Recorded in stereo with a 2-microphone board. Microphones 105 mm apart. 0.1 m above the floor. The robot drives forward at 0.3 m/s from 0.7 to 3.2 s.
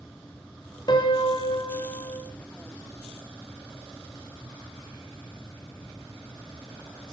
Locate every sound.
0.9 s a piano: 45° left (ahead or behind), 2.5 m; by 2.2 s 50° left (ahead or behind), 2.5 m